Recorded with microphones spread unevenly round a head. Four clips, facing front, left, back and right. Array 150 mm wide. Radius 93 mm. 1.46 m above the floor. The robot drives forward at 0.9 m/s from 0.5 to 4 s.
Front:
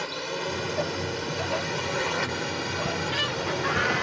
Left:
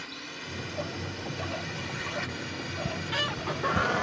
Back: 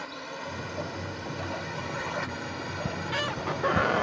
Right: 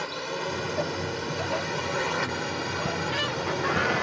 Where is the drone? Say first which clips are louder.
Right 11 dB, front 6 dB; 45° right; by 4.0 s 50° right.